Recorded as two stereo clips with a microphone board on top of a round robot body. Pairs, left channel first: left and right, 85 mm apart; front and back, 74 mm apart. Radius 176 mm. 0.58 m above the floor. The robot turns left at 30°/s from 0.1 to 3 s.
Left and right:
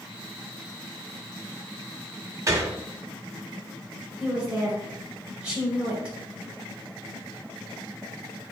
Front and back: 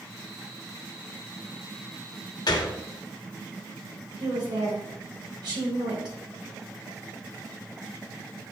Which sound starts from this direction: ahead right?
A gunshot, at 2.5 s.